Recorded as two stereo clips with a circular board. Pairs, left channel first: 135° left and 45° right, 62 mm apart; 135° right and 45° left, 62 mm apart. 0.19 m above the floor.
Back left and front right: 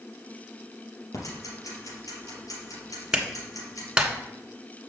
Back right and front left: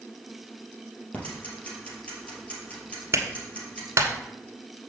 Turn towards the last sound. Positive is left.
turn(degrees=30)